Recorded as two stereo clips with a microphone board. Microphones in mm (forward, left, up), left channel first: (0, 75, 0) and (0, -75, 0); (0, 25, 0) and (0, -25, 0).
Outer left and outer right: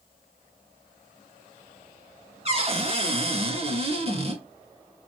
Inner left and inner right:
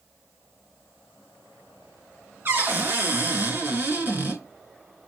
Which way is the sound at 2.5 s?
40° right (ahead or behind).